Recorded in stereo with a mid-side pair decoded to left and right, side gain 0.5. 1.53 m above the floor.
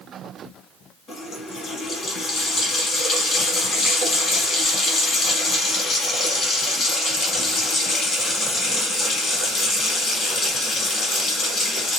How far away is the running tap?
About 1.7 m.